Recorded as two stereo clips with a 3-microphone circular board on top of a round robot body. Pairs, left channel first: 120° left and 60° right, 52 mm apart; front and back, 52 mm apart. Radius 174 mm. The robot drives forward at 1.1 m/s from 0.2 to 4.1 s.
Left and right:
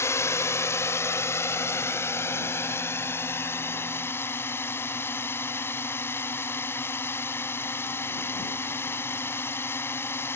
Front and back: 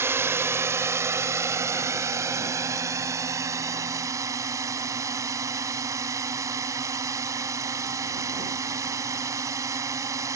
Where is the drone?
145° left; by 10.4 s 165° left.